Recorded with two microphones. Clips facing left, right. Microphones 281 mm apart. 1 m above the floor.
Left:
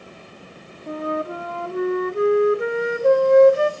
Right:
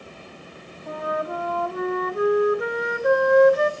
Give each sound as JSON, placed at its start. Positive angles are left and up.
{"t": 0.9, "sound": "a flute", "side_deg": 30, "distance_m": 0.6}